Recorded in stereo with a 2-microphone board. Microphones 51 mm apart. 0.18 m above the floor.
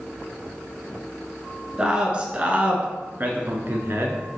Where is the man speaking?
20° right (ahead or behind), 1.9 m; by 4.2 s 55° right (ahead or behind), 1.8 m.